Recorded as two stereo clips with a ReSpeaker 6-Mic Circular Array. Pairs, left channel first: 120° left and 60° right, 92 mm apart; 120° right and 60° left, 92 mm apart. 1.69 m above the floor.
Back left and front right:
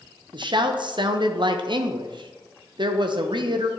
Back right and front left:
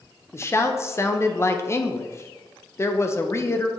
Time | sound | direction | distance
0.3 | a woman speaking | 65° right | 0.7 m